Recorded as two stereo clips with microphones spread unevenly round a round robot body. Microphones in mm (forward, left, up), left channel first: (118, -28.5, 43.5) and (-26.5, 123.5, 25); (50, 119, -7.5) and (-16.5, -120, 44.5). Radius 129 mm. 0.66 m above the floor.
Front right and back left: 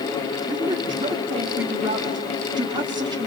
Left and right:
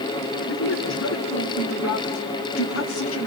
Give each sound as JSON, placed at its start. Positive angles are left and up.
{"t": 0.5, "sound": "a man speaking", "azimuth_deg": 70, "distance_m": 2.0}